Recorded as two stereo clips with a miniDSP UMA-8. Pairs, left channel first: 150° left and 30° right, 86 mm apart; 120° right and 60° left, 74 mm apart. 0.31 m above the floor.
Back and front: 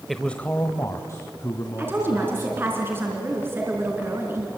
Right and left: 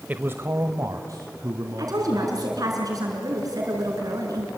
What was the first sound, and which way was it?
A man speaking, 55° left.